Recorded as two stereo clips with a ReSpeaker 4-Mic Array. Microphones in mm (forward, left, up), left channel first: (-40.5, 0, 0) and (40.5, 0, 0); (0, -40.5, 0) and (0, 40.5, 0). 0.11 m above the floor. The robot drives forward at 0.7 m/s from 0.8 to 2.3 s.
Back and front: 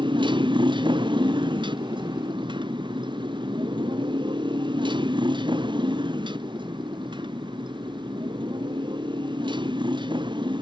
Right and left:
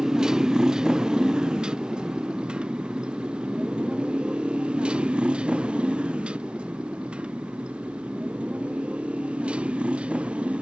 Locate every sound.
0.0 s a motorcycle: 10° left; by 10.6 s 15° left